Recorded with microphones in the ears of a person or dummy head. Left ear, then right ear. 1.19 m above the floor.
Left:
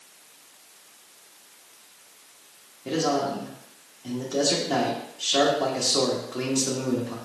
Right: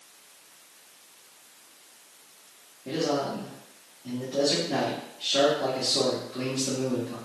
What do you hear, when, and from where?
2.9 s a man speaking: 55° left (ahead or behind), 1.1 m